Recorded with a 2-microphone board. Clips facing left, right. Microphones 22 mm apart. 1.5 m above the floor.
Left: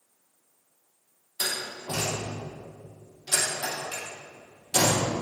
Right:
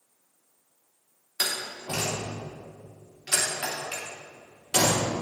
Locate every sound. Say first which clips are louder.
1.4 s a door slam: right 1 dB; 75° right (ahead or behind), 3 m